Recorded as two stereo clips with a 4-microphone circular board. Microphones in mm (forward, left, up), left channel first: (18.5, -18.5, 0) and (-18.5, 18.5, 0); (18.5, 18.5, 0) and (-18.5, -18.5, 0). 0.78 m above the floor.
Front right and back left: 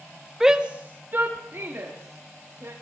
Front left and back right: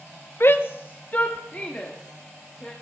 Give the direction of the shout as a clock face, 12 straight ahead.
10 o'clock.